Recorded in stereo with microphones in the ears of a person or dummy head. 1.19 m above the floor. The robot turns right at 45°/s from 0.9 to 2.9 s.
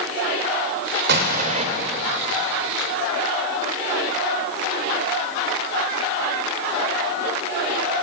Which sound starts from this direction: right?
An explosion, at 1.1 s.